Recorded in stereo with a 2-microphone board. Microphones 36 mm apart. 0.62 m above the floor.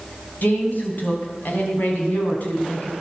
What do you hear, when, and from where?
0.4 s a woman speaking: 60° left (ahead or behind), 4 m; by 2.9 s 50° left (ahead or behind), 6.5 m